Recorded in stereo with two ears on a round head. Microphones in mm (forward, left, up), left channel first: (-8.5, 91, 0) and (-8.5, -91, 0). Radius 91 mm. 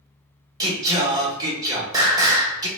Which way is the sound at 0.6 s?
20° right (ahead or behind).